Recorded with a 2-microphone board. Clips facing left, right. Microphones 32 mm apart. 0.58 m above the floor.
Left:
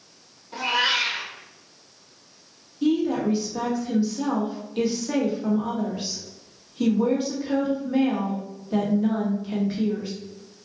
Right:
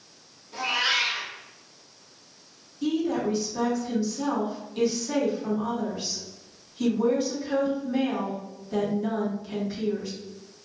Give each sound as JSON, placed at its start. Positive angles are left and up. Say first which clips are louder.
{"t": 0.5, "sound": "a cat meowing", "louder": "left 2 dB", "side_deg": 40, "distance_m": 1.0}
{"t": 2.8, "sound": "a woman speaking", "louder": "left 4 dB", "side_deg": 20, "distance_m": 1.0}